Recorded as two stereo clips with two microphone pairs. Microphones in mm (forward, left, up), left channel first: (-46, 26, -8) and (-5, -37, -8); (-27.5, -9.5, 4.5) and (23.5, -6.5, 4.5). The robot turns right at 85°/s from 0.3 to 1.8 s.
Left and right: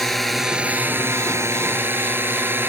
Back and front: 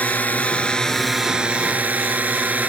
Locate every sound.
0.0 s a drone: 150° right; by 2.7 s 20° right